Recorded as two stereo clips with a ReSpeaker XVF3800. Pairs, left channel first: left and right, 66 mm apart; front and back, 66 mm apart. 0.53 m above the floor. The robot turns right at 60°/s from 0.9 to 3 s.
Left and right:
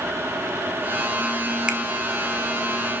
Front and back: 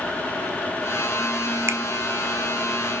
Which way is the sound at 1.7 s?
160° right.